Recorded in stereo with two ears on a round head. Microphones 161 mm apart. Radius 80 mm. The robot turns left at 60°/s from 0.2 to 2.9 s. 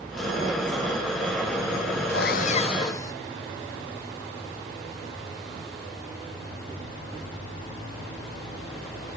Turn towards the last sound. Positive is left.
turn(degrees=20)